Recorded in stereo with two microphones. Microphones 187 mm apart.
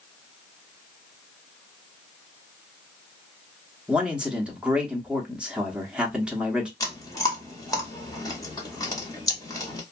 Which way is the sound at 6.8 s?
20° left (ahead or behind).